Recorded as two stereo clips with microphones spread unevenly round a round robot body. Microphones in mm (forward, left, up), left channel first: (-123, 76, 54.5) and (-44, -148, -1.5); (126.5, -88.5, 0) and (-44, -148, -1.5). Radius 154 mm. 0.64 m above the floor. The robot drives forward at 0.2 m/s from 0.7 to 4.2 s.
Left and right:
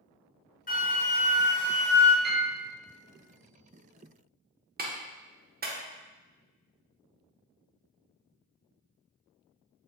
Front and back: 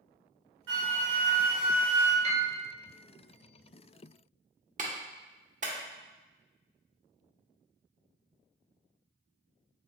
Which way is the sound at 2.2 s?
110° right.